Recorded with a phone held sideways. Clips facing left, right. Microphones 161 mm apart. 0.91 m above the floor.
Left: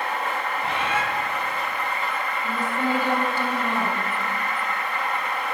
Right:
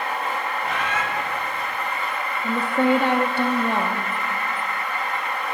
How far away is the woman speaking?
About 1.3 m.